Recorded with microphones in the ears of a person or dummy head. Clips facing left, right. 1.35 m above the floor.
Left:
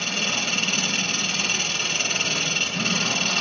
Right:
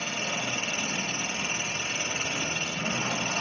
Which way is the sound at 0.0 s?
65° left (ahead or behind).